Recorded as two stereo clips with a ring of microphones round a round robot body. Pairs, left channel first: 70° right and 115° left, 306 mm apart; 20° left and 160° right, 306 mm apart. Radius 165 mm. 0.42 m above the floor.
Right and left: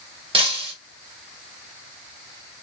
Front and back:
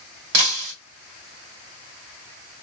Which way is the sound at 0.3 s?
175° right.